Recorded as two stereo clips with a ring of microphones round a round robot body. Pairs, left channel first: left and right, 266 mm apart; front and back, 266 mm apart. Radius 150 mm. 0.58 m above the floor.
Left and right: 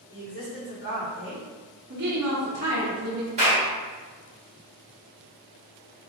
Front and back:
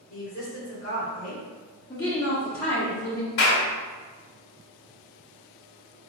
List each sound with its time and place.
0.1 s a woman speaking: 55° left, 2.0 m
1.9 s a woman speaking: 70° right, 0.8 m
3.4 s a clap: 25° right, 1.6 m